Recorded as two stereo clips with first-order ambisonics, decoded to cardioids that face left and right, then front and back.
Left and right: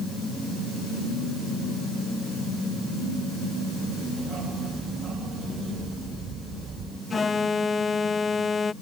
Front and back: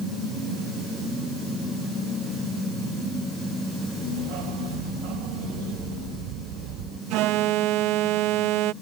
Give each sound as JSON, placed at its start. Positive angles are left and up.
{"t": 4.2, "sound": "a dog barking", "azimuth_deg": -150}
{"t": 7.1, "sound": "an alarm", "azimuth_deg": 165}